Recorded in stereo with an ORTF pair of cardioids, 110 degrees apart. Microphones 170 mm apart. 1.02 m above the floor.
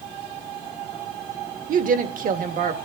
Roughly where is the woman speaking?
Ahead right.